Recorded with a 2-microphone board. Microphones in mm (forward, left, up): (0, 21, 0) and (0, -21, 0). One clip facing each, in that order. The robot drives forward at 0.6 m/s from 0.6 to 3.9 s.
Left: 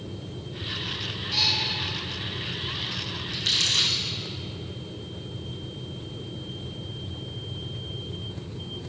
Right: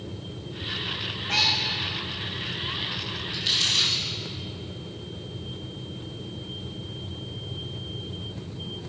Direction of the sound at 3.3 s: 65° left (ahead or behind).